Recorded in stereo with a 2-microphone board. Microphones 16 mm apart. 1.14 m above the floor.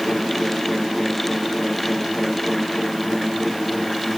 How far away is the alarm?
No alarm in this recording.